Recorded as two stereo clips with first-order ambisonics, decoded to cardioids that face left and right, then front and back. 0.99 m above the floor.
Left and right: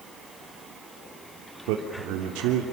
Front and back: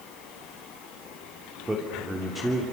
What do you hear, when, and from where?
1.7 s a man speaking: 100° right, 3.5 m